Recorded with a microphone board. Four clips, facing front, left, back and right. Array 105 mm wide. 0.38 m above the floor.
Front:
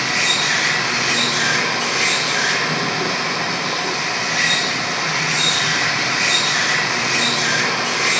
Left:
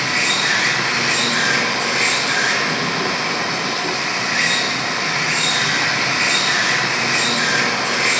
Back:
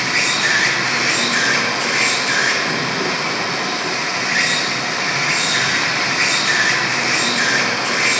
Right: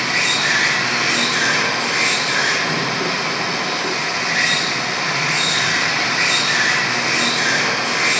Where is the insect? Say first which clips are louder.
Even, back 1 dB; 160° left, 4 m.